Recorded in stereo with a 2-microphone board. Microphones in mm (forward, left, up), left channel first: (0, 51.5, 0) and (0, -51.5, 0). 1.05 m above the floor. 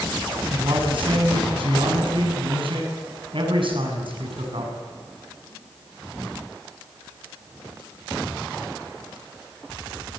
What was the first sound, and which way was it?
A man speaking, 65° right (ahead or behind).